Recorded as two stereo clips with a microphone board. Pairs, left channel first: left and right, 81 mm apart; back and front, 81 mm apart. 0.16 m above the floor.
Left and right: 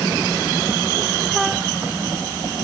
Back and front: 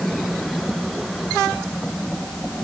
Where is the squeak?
No squeak in this recording.